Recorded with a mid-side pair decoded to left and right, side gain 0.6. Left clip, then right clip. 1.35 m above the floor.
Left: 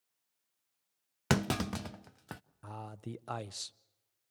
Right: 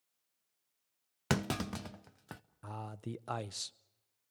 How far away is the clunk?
About 0.5 m.